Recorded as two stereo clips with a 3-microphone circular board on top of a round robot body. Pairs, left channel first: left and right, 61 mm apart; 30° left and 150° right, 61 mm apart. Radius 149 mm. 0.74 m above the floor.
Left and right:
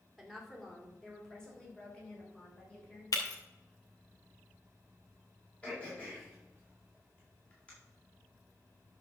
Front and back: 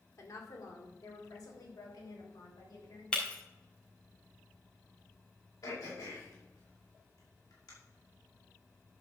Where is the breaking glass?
105° left, 2 m.